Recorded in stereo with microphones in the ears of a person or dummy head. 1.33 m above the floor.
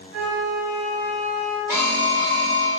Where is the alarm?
10° right (ahead or behind), 1.6 m.